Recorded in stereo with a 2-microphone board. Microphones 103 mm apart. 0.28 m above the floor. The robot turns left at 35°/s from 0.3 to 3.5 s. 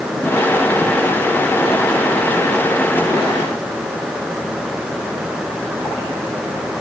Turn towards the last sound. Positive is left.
No sound to turn to.